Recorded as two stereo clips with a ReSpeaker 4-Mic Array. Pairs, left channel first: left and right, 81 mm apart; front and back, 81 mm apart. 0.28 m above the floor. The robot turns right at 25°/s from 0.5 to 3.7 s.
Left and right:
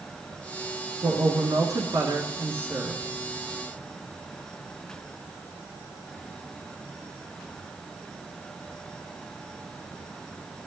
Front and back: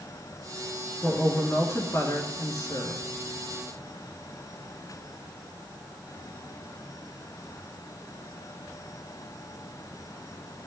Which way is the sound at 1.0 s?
75° right.